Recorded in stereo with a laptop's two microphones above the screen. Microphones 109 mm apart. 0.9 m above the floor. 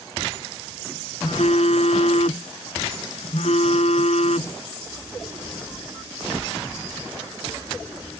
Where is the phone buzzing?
75° left (ahead or behind).